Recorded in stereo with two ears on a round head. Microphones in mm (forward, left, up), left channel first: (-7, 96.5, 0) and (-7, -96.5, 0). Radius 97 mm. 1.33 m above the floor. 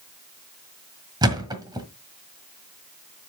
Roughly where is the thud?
Centre.